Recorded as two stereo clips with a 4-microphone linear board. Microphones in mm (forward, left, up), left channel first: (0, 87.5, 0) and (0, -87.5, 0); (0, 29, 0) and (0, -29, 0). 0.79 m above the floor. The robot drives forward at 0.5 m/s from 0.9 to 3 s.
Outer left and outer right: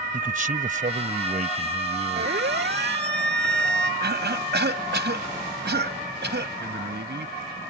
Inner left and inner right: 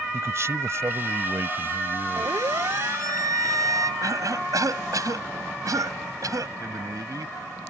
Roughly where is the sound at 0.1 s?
Right.